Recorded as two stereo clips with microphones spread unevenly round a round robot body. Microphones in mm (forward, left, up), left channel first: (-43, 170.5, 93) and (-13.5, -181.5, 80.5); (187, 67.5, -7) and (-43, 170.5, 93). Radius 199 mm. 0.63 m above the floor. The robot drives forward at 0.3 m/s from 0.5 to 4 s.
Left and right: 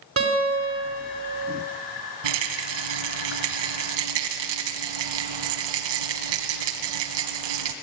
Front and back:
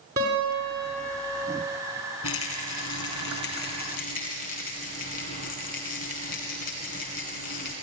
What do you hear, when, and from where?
0.2 s a guitar: 140° right, 4.5 m
2.2 s a rattle: 80° right, 1.9 m; by 7.7 s 95° right, 1.8 m